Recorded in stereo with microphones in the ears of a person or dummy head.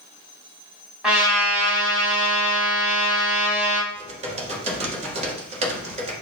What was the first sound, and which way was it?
A trumpet, 5° right (ahead or behind).